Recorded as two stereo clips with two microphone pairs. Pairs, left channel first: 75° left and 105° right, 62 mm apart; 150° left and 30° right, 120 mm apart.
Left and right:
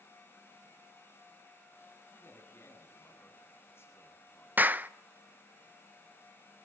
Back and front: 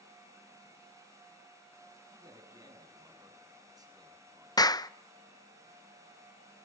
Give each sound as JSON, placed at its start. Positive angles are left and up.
{"t": 2.1, "sound": "a man speaking", "azimuth_deg": 30, "distance_m": 8.0}
{"t": 4.6, "sound": "a clap", "azimuth_deg": -160, "distance_m": 0.6}